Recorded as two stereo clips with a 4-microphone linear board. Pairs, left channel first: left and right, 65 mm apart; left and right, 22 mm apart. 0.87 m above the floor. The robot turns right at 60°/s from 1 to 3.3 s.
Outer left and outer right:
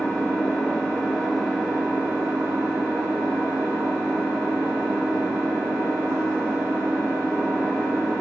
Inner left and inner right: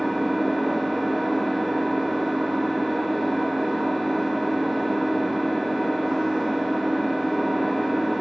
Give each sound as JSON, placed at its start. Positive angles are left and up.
{"t": 0.0, "sound": "an engine running", "azimuth_deg": 165, "distance_m": 0.8}